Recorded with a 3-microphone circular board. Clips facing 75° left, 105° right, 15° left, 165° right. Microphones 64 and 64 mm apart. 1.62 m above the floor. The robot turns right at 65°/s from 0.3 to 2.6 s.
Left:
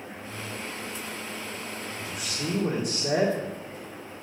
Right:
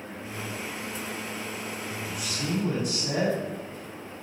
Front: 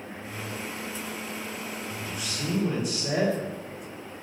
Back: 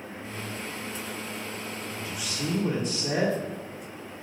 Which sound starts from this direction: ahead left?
A man speaking, at 2.0 s.